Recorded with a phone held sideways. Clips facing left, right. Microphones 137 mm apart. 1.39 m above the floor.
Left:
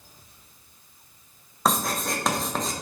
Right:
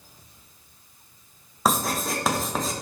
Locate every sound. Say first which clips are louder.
1.6 s writing: right 1 dB; 5° right (ahead or behind), 1.1 m